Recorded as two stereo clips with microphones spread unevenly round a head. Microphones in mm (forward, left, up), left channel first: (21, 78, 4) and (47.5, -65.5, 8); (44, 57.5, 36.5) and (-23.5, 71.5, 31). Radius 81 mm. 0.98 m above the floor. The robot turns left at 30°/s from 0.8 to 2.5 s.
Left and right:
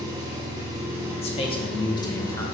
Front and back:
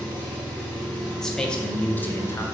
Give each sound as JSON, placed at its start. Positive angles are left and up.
{"t": 0.0, "sound": "an engine running", "azimuth_deg": -145, "distance_m": 0.7}
{"t": 1.2, "sound": "a man speaking", "azimuth_deg": 75, "distance_m": 0.7}